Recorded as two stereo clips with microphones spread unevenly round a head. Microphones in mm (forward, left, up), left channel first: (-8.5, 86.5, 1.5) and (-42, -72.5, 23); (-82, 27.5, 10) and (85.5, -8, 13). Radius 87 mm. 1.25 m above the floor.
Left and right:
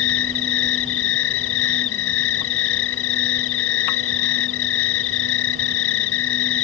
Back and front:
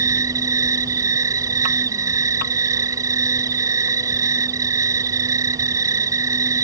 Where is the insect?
60° left.